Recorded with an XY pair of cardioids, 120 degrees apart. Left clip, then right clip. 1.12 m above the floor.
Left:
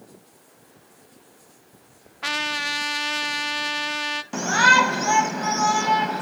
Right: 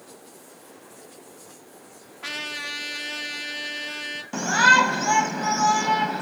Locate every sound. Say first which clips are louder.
2.2 s a trumpet: left 6 dB; 45° left, 0.7 m
4.3 s a shout: even; 10° left, 0.9 m